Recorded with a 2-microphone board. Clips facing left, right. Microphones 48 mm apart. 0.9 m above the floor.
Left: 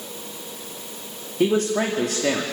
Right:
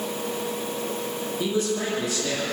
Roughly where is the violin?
No violin in this recording.